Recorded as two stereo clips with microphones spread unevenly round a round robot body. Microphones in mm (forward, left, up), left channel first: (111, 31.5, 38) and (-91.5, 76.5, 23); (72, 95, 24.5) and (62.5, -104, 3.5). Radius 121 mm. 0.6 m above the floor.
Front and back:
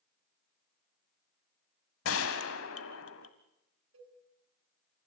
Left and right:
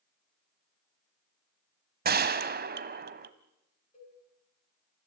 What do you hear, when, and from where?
2.0 s a gunshot: 50° right, 1.3 m
3.9 s a cowbell: 155° left, 4.5 m